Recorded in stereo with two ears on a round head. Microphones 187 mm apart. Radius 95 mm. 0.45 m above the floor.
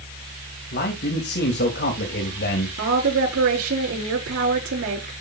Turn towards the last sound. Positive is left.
turn(degrees=-65)  # may be behind; listen again after turning